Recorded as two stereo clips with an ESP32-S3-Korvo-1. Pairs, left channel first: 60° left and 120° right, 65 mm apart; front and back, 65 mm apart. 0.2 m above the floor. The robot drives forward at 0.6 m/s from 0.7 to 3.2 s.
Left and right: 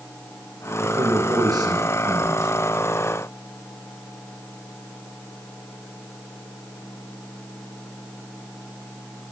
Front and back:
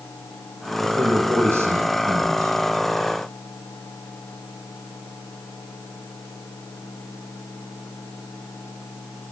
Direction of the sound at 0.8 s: 125° right.